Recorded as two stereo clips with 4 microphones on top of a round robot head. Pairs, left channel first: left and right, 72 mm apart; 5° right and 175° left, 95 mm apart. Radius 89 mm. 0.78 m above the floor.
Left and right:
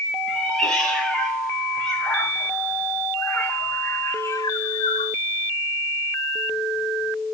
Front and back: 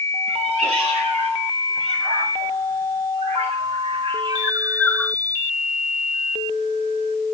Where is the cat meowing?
175° left, 5 m; by 5.2 s 70° left, 0.9 m.